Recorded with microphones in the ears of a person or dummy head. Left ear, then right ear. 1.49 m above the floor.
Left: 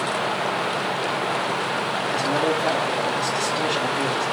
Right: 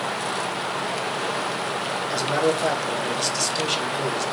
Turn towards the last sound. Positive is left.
turn(degrees=-80)